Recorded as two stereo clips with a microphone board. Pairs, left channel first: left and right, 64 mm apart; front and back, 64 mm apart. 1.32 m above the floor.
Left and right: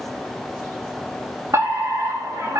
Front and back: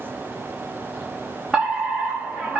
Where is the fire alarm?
100° right, 4 m.